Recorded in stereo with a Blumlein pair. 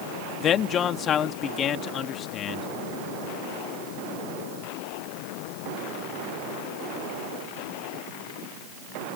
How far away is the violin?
No violin in this recording.